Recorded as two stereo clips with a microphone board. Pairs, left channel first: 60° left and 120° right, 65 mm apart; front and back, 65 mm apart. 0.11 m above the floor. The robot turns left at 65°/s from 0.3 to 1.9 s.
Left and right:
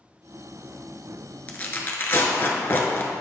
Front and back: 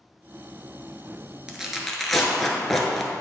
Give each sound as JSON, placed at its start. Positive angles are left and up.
{"t": 1.5, "sound": "tearing paper", "azimuth_deg": 110, "distance_m": 0.8}